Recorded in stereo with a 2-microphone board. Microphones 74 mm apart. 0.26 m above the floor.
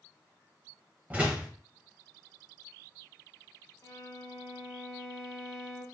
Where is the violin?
45° left (ahead or behind), 0.8 m.